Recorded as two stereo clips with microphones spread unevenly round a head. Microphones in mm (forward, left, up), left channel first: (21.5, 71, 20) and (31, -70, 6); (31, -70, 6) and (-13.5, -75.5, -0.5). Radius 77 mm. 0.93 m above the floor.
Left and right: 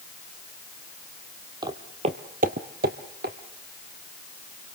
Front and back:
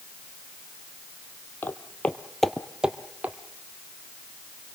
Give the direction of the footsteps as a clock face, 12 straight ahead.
1 o'clock.